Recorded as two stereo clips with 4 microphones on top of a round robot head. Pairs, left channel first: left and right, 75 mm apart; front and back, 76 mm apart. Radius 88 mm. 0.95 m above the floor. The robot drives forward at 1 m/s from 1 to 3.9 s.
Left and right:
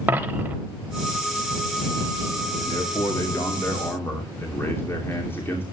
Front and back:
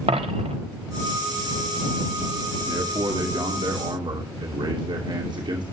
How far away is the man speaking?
About 1.7 m.